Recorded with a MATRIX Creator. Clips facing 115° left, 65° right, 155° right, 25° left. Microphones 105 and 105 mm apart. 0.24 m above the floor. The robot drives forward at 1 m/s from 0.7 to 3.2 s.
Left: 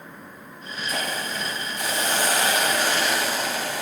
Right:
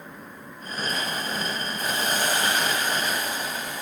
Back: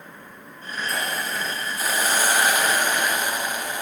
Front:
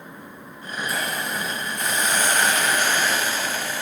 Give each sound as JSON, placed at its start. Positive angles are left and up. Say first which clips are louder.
{"t": 0.9, "sound": "a hiss", "louder": "left 2 dB, even", "azimuth_deg": 110, "distance_m": 7.5}